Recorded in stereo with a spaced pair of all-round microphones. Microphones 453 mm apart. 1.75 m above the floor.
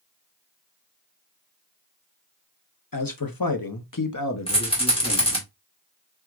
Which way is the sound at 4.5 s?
10° left (ahead or behind).